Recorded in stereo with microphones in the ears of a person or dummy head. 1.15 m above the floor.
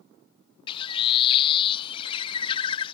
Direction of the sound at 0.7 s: 25° left (ahead or behind).